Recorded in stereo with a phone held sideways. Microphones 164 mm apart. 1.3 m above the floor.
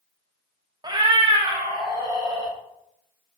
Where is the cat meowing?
25° right (ahead or behind), 0.6 m; by 2.5 s 20° right (ahead or behind), 1.6 m.